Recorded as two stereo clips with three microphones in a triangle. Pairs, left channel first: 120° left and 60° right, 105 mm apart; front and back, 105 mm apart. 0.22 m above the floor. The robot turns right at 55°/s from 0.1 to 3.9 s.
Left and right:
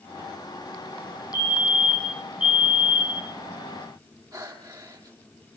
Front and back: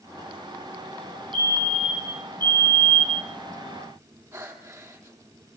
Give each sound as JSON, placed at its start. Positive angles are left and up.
{"t": 1.3, "sound": "a fire alarm", "azimuth_deg": 165, "distance_m": 6.0}
{"t": 4.3, "sound": "breathing", "azimuth_deg": -115, "distance_m": 4.5}